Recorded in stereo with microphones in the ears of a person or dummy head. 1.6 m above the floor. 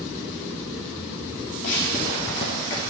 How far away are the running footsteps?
About 2.5 m.